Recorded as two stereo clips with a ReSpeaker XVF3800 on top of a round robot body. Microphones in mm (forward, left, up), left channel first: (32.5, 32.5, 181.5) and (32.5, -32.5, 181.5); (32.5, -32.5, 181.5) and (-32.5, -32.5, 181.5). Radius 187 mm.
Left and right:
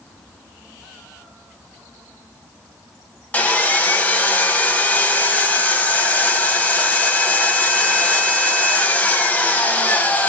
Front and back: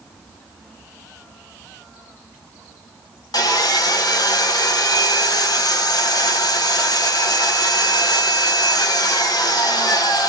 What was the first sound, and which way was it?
Sawing, 20° left.